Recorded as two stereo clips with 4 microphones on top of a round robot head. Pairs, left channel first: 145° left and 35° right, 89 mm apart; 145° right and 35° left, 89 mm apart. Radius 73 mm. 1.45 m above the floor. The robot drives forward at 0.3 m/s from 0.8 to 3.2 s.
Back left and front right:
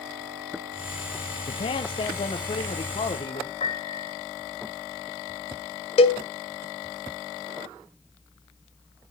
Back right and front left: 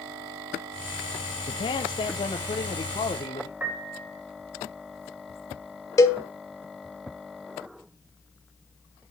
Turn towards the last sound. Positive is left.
turn(degrees=160)